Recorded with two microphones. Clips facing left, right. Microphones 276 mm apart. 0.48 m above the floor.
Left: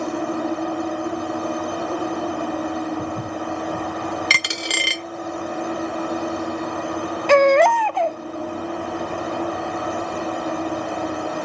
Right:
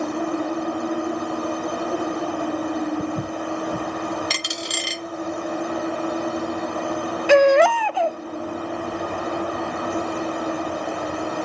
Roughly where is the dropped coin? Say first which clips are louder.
Left 2 dB; left.